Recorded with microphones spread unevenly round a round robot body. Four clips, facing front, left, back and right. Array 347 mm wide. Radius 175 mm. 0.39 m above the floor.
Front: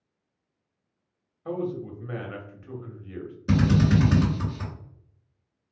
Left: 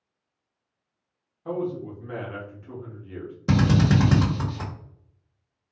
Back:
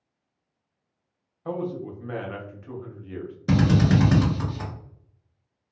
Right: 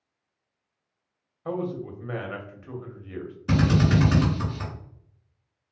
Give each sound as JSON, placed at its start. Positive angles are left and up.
{"t": 1.4, "sound": "a man speaking", "azimuth_deg": 0, "distance_m": 1.1}
{"t": 3.5, "sound": "a drill", "azimuth_deg": 75, "distance_m": 1.5}